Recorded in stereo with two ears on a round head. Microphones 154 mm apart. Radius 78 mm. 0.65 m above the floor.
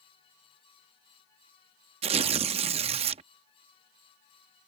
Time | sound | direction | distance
2.0 | tearing paper | 35° right (ahead or behind) | ?